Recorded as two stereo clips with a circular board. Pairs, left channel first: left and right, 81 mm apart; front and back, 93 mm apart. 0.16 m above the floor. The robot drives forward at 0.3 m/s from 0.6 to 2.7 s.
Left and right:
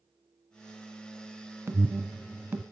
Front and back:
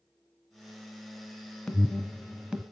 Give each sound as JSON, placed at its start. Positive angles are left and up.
{"t": 1.7, "sound": "an alarm", "azimuth_deg": -75, "distance_m": 1.0}